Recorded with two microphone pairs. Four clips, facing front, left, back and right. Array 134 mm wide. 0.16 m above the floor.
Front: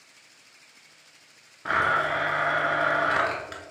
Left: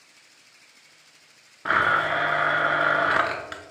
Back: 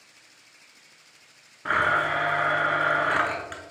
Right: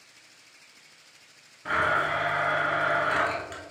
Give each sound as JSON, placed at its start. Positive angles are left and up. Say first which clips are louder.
{"t": 1.6, "sound": "a blender", "louder": "left 4 dB, back 1 dB", "azimuth_deg": 105, "distance_m": 0.6}